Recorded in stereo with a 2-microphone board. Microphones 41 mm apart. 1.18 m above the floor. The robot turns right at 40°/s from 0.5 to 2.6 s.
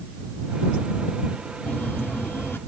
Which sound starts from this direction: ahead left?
A phone buzzing, at 1.6 s.